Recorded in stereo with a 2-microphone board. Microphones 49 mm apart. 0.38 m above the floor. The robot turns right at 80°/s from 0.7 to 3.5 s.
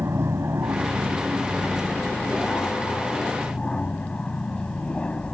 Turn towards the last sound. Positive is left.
turn(degrees=150)